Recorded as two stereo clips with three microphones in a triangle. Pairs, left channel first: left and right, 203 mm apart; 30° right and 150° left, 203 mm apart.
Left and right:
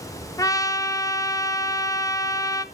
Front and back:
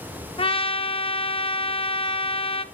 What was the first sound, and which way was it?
A trumpet, 20° left.